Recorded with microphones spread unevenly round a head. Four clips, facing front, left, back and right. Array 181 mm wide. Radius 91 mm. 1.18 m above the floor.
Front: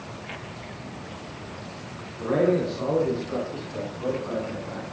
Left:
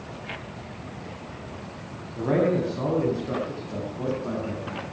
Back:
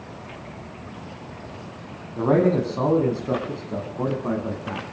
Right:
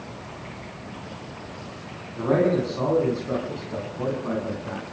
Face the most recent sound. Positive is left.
turn(degrees=180)